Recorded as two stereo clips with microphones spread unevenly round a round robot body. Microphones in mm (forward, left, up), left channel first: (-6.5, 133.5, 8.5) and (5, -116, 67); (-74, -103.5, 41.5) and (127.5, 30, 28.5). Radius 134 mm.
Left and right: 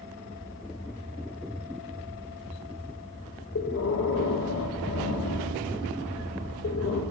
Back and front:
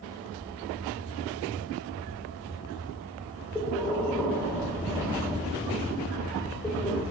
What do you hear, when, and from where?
3.5 s breathing: 125° left, 0.6 m